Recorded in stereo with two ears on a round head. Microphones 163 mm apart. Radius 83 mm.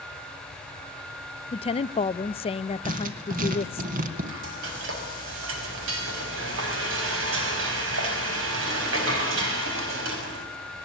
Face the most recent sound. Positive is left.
turn(degrees=-70)  # may be behind; listen again after turning